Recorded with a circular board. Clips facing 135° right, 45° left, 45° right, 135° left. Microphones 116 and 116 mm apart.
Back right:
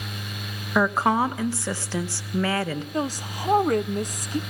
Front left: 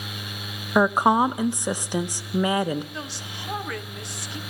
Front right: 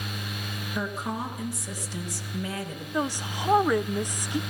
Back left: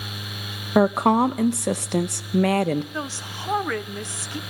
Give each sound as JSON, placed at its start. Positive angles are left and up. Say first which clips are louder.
{"t": 0.8, "sound": "a woman speaking", "louder": "front left 2 dB, back left 15 dB", "azimuth_deg": 120, "distance_m": 1.0}
{"t": 2.9, "sound": "a woman speaking", "louder": "back right 9 dB, front right 3 dB", "azimuth_deg": -115, "distance_m": 0.7}